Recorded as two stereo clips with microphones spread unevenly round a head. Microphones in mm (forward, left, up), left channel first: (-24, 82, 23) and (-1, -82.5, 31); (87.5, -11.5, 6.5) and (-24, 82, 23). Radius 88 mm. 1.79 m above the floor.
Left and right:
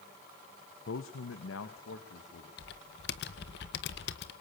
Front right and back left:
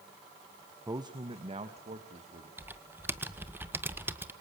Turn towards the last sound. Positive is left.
turn(degrees=70)